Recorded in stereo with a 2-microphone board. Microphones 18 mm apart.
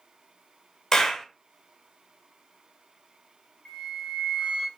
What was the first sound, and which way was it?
A clap, 30° left (ahead or behind).